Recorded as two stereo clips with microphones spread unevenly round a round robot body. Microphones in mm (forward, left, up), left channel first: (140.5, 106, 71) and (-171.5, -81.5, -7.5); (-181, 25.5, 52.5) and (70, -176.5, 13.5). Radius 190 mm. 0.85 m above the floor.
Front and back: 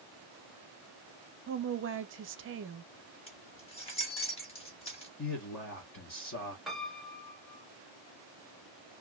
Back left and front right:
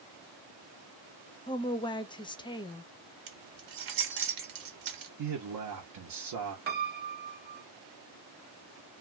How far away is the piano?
About 0.7 m.